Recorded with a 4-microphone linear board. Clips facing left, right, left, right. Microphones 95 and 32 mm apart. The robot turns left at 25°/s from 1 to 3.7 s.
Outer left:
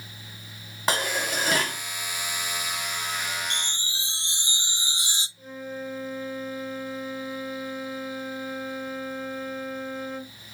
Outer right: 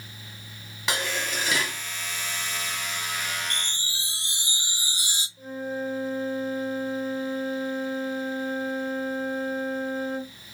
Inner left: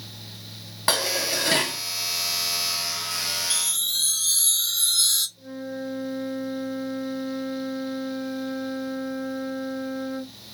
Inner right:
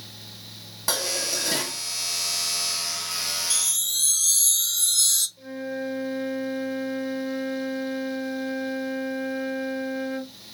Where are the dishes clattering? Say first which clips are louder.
Outer left 3 dB, inner left 3 dB; 45° left (ahead or behind), 1.2 m; by 1.8 s 55° left (ahead or behind), 1.2 m.